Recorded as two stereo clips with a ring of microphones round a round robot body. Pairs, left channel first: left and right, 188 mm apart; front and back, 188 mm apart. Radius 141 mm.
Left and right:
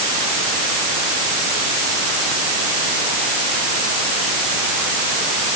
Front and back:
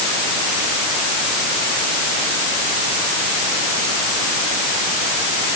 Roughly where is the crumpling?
No crumpling in this recording.